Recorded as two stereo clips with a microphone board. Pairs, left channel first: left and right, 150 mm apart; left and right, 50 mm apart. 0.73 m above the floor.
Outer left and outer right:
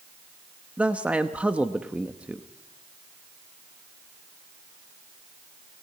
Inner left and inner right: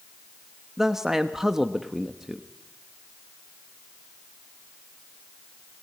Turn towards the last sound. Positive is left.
turn(degrees=-10)  # may be behind; listen again after turning